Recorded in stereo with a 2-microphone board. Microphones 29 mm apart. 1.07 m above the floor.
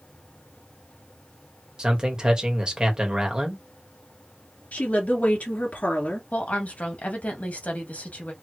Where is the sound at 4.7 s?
70° left (ahead or behind), 2.5 m.